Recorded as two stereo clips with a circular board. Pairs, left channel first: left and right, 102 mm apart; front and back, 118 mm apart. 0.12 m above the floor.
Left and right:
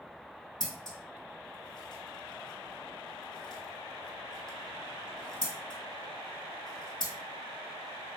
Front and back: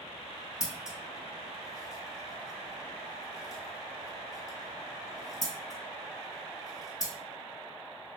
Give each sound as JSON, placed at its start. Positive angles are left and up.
{"t": 0.6, "sound": "scissors", "azimuth_deg": 55, "distance_m": 1.1}